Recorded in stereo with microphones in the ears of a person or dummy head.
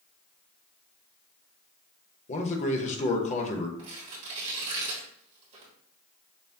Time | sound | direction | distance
2.3 | a man speaking | 35° left (ahead or behind) | 0.8 m
3.8 | tearing paper | 40° right (ahead or behind) | 1.5 m